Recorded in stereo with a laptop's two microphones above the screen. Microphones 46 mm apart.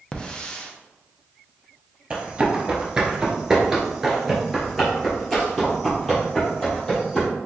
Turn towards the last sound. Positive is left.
turn(degrees=10)  # may be behind; listen again after turning